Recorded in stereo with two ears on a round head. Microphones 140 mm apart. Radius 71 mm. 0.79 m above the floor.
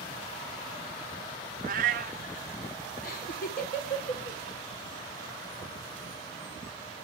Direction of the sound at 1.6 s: 50° right (ahead or behind).